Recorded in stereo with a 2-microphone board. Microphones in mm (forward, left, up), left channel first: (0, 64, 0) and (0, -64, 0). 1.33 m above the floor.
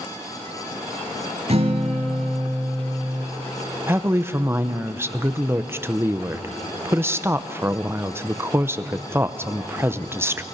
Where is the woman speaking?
20° right (ahead or behind), 0.8 m.